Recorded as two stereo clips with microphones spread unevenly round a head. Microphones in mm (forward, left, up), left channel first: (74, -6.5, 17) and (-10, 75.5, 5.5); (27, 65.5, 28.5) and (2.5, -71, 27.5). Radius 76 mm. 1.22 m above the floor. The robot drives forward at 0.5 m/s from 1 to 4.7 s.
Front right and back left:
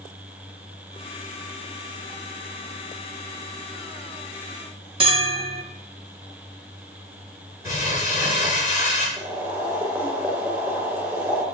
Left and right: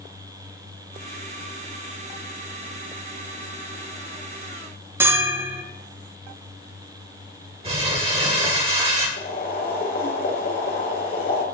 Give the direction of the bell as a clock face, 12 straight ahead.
6 o'clock.